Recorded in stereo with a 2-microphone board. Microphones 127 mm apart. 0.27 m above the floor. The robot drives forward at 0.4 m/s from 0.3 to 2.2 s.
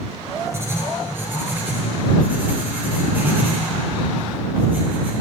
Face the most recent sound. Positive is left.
turn(degrees=-15)  # may be behind; listen again after turning